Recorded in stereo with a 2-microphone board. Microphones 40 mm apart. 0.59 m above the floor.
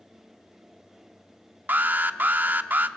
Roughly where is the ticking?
I don't hear ticking.